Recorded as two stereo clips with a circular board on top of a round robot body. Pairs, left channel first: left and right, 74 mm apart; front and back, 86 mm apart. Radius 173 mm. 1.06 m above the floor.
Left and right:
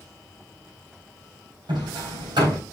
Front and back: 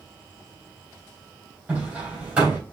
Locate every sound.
1.7 s hammering: 105° right, 3.5 m